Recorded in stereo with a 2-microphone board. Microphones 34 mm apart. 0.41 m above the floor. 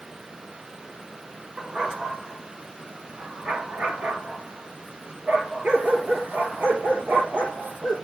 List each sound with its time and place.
1.6 s a dog barking: 25° right (ahead or behind), 2 m; by 8.0 s 70° right (ahead or behind), 5 m